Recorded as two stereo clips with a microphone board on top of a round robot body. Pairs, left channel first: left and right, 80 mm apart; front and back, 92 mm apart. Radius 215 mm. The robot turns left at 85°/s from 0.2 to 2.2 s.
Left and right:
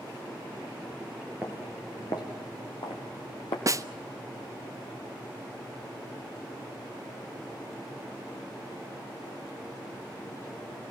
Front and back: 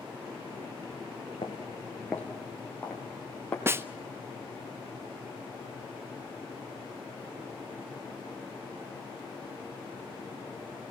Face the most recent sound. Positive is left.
turn(degrees=-120)